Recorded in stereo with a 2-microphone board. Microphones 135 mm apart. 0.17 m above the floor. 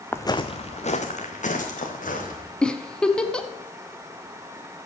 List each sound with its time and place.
0.1 s footsteps: 15° left (ahead or behind), 0.6 m; by 2.5 s 65° left (ahead or behind), 3.5 m
2.6 s a giggle: 5° left (ahead or behind), 0.7 m